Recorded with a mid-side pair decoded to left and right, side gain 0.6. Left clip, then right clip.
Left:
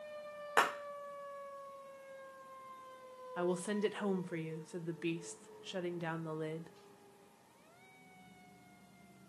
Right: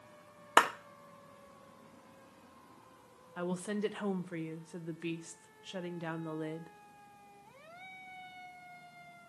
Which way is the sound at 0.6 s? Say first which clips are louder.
Right 5 dB; 50° right.